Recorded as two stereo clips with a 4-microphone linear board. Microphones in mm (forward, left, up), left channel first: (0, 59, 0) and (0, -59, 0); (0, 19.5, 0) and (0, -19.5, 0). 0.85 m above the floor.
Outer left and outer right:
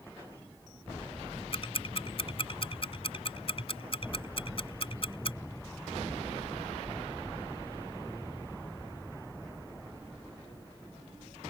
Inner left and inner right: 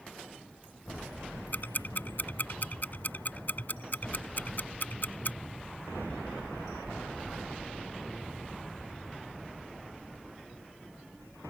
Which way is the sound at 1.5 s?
50° left (ahead or behind).